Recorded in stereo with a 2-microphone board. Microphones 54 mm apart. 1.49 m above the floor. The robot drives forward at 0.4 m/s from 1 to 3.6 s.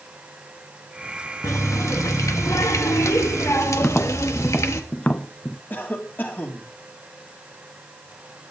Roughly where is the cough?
Left.